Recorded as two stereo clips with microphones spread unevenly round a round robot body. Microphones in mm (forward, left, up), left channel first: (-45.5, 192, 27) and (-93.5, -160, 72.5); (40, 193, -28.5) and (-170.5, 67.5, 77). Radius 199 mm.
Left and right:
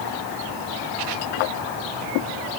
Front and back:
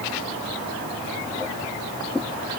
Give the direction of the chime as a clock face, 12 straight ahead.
I don't hear a chime.